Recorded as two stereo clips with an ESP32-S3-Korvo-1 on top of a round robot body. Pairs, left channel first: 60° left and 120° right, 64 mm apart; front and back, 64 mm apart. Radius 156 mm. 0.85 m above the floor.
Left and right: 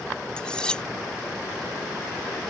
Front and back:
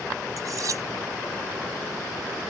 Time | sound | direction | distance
0.4 | cutlery clinking | 140° left | ?